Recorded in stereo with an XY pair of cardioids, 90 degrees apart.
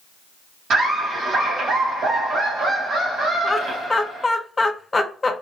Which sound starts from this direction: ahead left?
Laughter, at 3.4 s.